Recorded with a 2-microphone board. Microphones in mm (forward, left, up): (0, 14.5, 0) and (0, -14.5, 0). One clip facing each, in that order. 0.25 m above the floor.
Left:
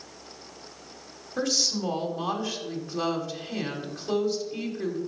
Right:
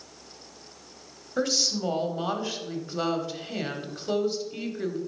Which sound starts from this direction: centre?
A woman speaking, at 1.4 s.